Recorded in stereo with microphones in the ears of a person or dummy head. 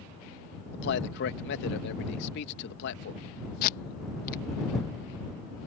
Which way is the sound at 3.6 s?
50° left (ahead or behind).